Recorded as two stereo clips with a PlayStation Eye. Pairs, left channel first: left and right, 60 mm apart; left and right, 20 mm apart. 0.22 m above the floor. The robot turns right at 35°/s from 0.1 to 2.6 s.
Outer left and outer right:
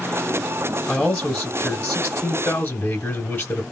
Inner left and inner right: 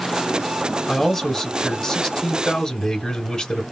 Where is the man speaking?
5° left (ahead or behind), 1.0 m; by 3.6 s 25° left (ahead or behind), 1.0 m.